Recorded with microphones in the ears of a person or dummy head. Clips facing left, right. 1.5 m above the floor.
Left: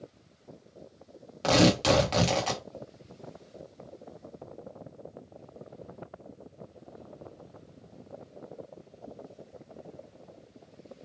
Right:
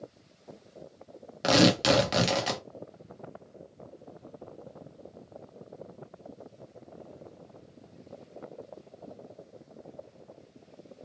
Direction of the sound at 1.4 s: 15° right (ahead or behind).